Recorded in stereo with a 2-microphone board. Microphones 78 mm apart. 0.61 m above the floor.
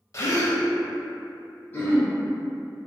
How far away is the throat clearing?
About 0.7 m.